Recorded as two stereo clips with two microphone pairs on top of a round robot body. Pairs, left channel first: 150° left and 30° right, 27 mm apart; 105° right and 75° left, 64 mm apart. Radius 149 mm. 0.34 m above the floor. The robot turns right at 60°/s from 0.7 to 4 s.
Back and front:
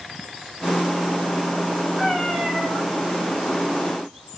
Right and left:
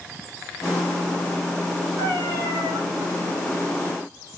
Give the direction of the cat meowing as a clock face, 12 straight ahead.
10 o'clock.